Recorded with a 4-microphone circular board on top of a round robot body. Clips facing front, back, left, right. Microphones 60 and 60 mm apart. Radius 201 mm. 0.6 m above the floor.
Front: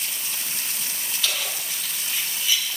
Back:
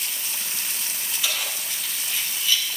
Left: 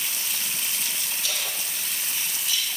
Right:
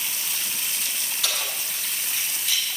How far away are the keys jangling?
About 4.5 m.